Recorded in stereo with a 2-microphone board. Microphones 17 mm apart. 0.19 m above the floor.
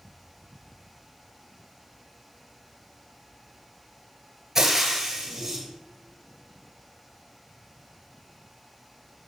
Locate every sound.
4.5 s frying: 30° right (ahead or behind), 1.1 m